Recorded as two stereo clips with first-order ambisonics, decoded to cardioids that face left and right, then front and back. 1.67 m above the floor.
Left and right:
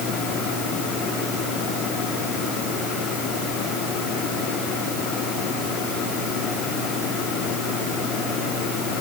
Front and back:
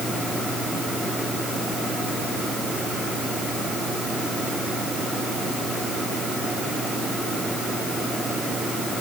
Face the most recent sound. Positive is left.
No sound to turn to.